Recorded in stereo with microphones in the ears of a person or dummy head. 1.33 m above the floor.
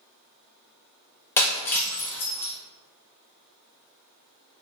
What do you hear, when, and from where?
1.4 s breaking glass: 15° left (ahead or behind), 0.6 m